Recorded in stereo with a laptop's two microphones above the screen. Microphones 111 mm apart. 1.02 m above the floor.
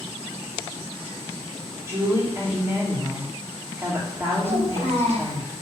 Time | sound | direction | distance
1.9 | a woman speaking | 20° right (ahead or behind) | 3 m
4.4 | a child speaking | 60° right (ahead or behind) | 3.5 m